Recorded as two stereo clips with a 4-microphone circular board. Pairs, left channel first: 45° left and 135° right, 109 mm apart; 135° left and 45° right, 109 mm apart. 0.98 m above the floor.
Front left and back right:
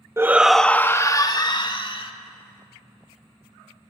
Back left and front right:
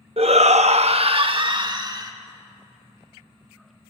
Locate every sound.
0.2 s a shout: 70° right, 0.9 m; by 2.1 s 10° left, 2 m